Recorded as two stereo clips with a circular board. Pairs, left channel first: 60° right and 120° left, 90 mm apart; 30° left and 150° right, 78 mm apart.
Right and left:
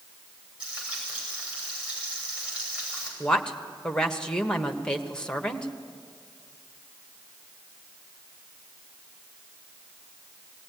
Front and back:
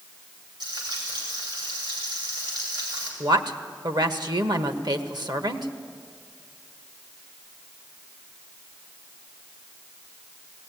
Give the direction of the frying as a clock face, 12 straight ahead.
5 o'clock.